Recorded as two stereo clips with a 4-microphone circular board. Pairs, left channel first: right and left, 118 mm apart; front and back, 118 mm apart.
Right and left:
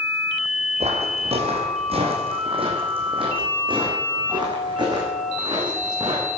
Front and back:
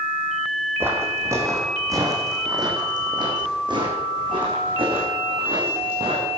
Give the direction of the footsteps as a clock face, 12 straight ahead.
8 o'clock.